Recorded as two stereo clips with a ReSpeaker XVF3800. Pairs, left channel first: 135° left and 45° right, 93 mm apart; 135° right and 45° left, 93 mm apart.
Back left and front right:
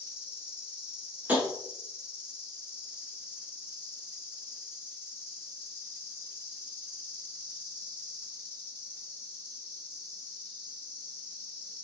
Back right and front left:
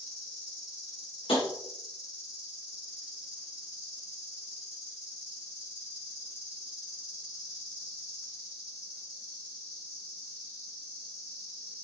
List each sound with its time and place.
0.0 s an insect: 165° right, 2.5 m
1.3 s tapping: 115° right, 1.4 m